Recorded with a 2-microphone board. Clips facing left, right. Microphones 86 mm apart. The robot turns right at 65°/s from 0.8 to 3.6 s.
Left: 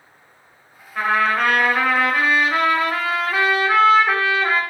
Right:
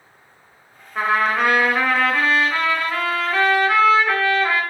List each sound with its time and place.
0.9 s a trumpet: 15° right (ahead or behind), 0.9 m; by 4.6 s 20° left (ahead or behind), 0.9 m